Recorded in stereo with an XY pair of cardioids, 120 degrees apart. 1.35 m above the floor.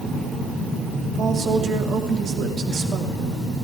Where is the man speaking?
45° right, 3 m.